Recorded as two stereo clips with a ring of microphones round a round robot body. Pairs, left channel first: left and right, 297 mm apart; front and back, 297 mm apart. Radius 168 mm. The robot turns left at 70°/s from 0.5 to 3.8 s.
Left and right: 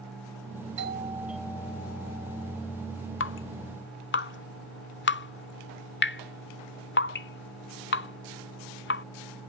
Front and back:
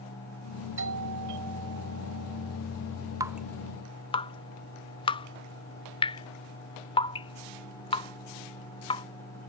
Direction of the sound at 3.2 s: 105° left.